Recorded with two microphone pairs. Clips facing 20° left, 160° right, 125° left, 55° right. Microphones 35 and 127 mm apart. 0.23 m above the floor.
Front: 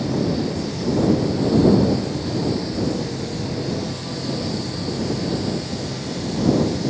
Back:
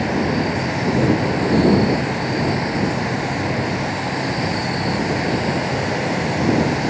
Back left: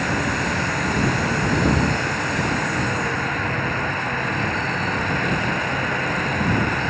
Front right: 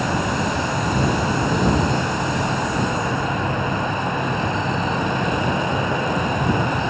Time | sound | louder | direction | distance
0.0 | an insect | back 3 dB, front right 2 dB | 125° right | ?